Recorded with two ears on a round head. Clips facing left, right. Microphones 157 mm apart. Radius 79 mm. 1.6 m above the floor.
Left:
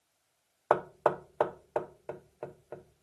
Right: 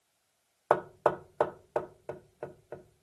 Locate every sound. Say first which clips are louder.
0.7 s knocking: even; 5° right (ahead or behind), 0.7 m